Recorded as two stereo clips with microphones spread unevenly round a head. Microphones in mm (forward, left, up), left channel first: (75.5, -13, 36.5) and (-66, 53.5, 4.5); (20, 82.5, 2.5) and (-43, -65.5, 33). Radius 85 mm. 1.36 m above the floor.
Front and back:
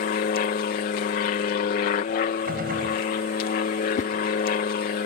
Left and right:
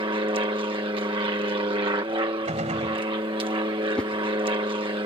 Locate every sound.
0.0 s an aircraft: 50° right
2.5 s a gunshot: 160° right
4.0 s a whoosh: 25° right